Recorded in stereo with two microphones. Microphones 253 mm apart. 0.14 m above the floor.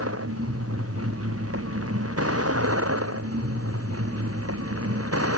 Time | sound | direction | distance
0.0 | a vehicle | 65° right (ahead or behind) | ?